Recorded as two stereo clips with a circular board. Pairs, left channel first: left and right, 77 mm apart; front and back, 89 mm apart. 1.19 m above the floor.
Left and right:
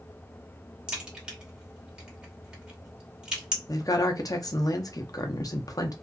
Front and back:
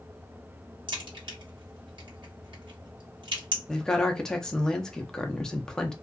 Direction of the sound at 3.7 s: 80° left.